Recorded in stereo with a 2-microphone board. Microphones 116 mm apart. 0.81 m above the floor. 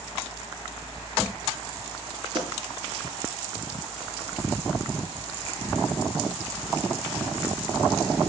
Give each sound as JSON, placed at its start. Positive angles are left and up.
{"t": 2.4, "sound": "a pop", "side_deg": -40, "distance_m": 5.0}